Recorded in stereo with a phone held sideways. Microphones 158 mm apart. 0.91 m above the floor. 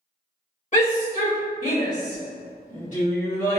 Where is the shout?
50° left (ahead or behind), 1.8 m.